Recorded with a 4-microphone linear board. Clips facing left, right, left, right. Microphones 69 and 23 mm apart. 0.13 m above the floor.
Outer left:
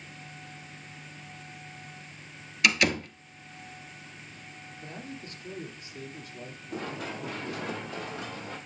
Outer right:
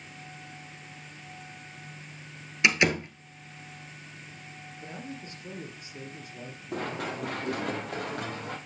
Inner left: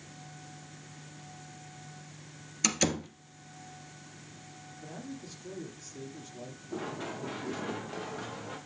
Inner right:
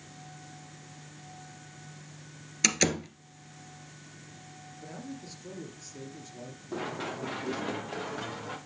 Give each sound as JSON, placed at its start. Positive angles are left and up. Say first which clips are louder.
{"t": 2.6, "sound": "a door slam", "louder": "outer right 1 dB, inner right 3 dB", "side_deg": -25, "distance_m": 1.2}
{"t": 4.8, "sound": "a man speaking", "louder": "outer right 1 dB, inner right 1 dB", "side_deg": -20, "distance_m": 3.0}
{"t": 6.7, "sound": "running footsteps", "louder": "outer right 3 dB, inner right 3 dB", "side_deg": -65, "distance_m": 3.0}